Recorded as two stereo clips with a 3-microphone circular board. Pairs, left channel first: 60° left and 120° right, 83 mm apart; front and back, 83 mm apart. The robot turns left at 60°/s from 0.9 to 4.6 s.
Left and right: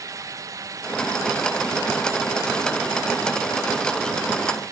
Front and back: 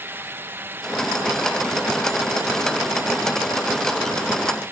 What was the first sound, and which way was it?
Only background noise.